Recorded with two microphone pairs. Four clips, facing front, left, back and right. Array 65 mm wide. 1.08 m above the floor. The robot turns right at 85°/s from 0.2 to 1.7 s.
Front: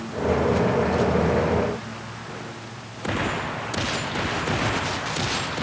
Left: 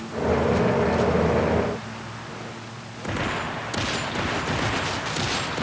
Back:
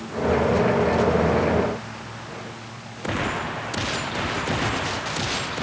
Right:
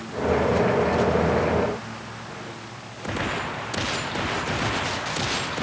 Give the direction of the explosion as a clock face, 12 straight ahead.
I don't hear an explosion.